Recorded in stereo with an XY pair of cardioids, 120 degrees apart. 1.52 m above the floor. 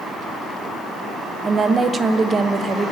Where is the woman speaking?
30° right, 0.9 m.